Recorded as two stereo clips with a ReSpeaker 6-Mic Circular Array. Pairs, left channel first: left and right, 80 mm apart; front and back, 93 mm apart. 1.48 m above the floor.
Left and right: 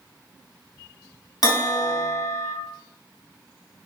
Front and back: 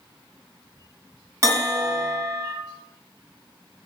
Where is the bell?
120° left, 0.9 m.